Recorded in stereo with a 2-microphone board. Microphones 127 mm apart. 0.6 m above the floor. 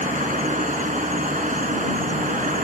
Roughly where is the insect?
Right.